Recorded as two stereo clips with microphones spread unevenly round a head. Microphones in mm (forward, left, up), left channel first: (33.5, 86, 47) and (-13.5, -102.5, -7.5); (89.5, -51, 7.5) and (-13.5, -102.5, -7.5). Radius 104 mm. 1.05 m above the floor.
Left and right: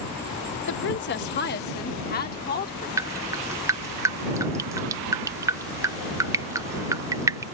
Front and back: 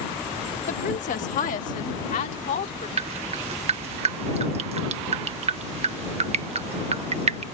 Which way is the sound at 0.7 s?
45° left.